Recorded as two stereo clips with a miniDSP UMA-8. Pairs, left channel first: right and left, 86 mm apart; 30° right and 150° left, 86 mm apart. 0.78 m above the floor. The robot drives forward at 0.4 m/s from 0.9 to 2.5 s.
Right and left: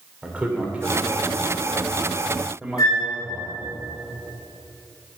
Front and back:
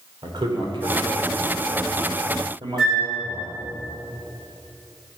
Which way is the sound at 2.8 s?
125° right.